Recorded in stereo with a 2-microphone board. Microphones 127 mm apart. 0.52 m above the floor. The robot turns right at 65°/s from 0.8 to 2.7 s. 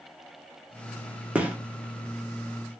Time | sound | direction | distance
1.4 | a gunshot | 10° right (ahead or behind) | 0.8 m